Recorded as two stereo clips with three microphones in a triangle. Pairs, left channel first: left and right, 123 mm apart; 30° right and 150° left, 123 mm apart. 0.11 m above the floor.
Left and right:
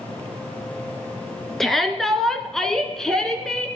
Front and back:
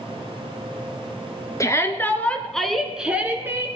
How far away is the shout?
About 1.3 m.